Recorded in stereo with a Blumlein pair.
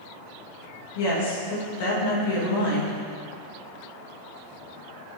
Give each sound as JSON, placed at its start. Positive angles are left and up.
{"t": 0.9, "sound": "a woman speaking", "azimuth_deg": 50, "distance_m": 2.5}